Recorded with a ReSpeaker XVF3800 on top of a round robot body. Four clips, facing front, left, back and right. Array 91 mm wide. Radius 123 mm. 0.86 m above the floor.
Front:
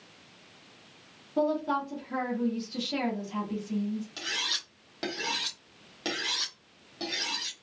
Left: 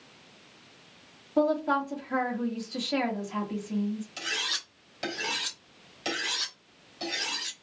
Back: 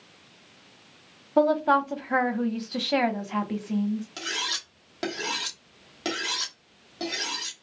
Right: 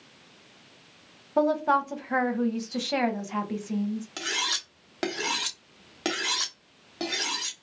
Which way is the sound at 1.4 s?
155° right.